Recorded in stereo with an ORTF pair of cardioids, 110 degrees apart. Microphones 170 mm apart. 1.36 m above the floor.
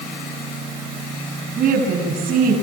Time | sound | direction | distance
1.6 | a woman speaking | 55° right | 8 m